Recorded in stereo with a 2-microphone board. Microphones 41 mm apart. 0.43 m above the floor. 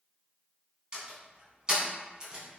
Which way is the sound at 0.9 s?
25° right (ahead or behind).